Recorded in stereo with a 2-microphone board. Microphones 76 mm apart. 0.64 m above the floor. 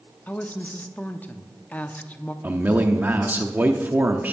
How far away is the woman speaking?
About 0.7 m.